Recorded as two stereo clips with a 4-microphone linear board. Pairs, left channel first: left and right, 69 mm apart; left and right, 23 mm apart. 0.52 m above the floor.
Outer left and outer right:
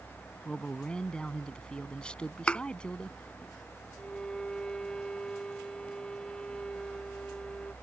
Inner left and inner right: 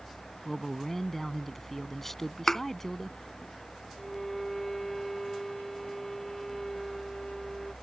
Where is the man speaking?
15° left (ahead or behind).